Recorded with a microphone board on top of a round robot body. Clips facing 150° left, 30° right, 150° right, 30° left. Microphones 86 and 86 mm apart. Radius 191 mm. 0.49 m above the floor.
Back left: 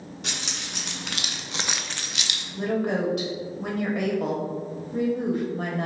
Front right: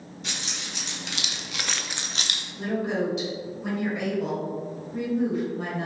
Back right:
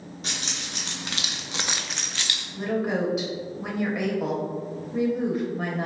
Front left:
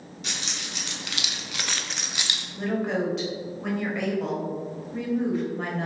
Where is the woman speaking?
130° left, 1.5 m.